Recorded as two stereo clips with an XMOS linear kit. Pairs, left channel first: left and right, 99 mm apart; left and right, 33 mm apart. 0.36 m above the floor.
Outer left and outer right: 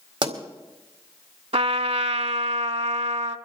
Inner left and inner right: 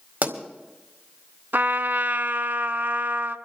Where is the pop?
50° right (ahead or behind), 2.0 m.